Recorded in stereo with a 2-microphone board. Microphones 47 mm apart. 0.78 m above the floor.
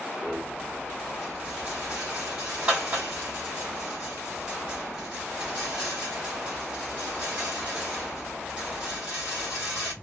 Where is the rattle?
25° right (ahead or behind), 1.9 m.